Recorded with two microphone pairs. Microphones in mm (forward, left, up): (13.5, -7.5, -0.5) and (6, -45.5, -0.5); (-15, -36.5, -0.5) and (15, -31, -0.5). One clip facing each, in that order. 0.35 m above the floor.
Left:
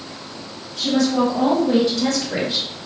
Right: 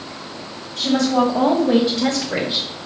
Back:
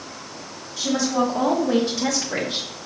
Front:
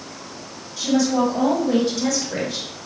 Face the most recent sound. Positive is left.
turn(degrees=-175)